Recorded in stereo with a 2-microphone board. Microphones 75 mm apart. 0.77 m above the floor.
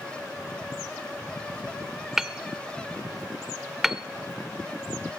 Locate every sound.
2.2 s hammering: 5° right (ahead or behind), 0.5 m